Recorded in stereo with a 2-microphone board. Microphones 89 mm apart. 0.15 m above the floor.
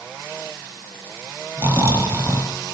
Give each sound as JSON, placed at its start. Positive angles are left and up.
{"t": 1.6, "sound": "snoring", "side_deg": -30, "distance_m": 2.0}